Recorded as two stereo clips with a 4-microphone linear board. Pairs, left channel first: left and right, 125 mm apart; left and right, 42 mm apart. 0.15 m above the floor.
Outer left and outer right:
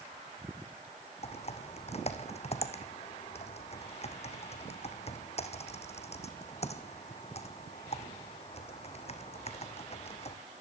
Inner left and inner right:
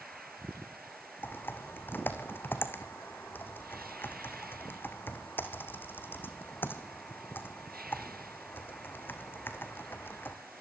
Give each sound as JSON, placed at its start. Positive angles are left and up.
{"t": 1.2, "sound": "typing on a keyboard", "side_deg": 60, "distance_m": 2.0}